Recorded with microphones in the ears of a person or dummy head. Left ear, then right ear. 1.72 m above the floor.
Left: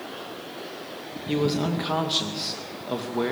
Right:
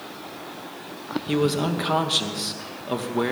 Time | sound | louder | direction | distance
1.3 | a man speaking | right 2 dB | 10° right (ahead or behind) | 2 m